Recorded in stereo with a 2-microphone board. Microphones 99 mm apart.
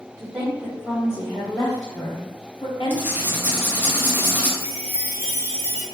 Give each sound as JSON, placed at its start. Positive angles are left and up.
{"t": 0.2, "sound": "a woman speaking", "side_deg": -25, "distance_m": 1.4}
{"t": 2.9, "sound": "writing", "side_deg": -20, "distance_m": 0.6}
{"t": 4.6, "sound": "a chime", "side_deg": -15, "distance_m": 0.9}